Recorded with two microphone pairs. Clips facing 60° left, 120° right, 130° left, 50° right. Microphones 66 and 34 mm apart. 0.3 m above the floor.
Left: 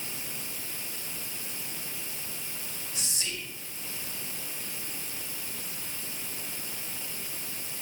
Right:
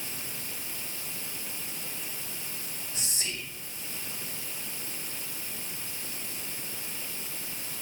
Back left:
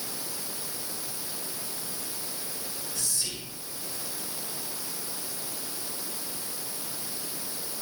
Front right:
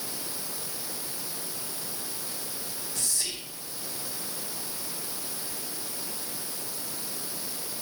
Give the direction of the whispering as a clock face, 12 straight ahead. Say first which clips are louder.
Even, front right 1 dB; 2 o'clock.